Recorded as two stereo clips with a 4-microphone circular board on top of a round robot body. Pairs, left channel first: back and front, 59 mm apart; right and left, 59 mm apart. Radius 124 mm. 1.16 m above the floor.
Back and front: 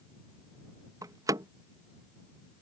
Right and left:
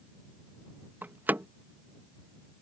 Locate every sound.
1.0 s a door slam: 30° left